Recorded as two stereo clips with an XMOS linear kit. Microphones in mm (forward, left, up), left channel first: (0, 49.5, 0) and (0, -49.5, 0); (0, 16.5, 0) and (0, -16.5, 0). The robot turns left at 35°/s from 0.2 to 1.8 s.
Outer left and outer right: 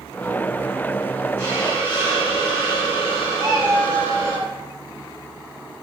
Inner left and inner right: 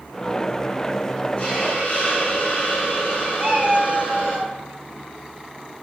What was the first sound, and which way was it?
A hiss, 30° left (ahead or behind).